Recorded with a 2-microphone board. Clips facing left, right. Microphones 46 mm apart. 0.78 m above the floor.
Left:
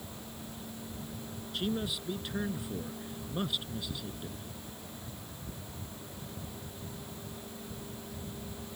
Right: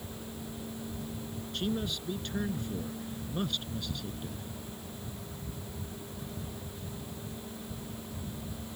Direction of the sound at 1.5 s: 5° left (ahead or behind).